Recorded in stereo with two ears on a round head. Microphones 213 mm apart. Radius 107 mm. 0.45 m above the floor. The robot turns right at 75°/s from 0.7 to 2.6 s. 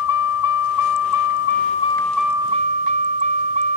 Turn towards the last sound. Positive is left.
turn(degrees=-150)